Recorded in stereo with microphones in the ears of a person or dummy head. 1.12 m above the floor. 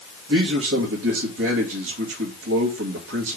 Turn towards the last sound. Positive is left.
turn(degrees=-65)  # may be behind; listen again after turning